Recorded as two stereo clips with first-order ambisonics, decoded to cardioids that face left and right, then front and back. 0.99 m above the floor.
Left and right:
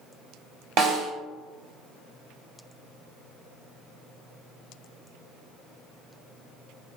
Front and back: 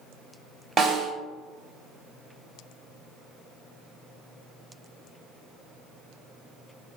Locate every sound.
0.8 s a snare drum: 110° right, 1.1 m